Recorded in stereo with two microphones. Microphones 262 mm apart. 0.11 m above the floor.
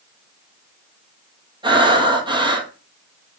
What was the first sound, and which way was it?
Breathing, 20° right (ahead or behind).